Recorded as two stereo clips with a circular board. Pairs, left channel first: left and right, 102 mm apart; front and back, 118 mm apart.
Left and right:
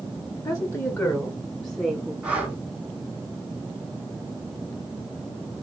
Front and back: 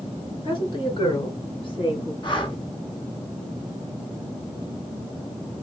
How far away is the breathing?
About 1.8 m.